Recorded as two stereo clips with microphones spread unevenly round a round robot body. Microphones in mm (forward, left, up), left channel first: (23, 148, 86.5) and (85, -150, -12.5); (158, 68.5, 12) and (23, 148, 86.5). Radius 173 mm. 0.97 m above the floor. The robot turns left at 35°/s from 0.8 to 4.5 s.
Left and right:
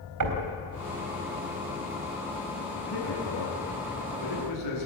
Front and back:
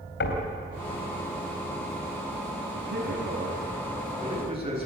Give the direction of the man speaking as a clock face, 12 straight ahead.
7 o'clock.